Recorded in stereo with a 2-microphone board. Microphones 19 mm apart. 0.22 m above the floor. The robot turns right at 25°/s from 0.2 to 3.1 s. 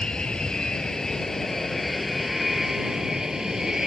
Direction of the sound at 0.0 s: 130° left.